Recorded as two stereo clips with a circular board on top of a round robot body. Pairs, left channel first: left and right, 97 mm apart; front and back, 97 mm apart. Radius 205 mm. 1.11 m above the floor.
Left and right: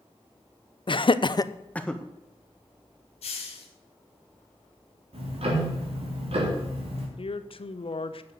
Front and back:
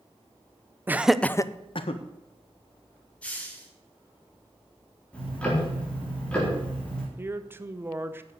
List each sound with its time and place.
0.9 s laughter: 115° left, 1.0 m; by 2.0 s 5° left, 1.2 m
3.2 s a hiss: 80° left, 1.5 m
5.1 s ticking: 80° right, 3.5 m
7.2 s a man speaking: 110° left, 1.0 m